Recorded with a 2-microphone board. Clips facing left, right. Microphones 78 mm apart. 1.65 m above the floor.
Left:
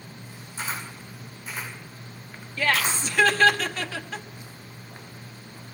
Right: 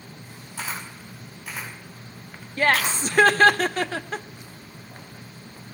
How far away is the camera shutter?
About 6.5 m.